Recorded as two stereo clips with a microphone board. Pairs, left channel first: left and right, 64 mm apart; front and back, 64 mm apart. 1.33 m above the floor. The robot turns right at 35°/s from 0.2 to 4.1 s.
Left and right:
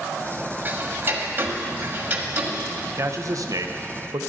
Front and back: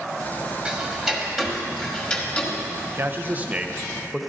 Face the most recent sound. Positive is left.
turn(degrees=-95)